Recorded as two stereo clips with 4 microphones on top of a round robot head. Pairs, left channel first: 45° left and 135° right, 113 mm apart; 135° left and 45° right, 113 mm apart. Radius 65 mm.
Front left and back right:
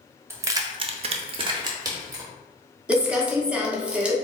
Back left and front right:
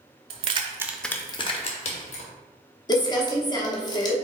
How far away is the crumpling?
About 1.0 m.